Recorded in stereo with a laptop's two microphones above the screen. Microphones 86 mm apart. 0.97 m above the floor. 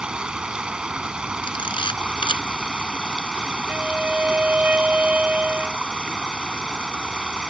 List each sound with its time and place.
0.0 s running water: 10° right (ahead or behind)
1.4 s a camera shutter: 85° left
3.7 s a violin: 15° right (ahead or behind)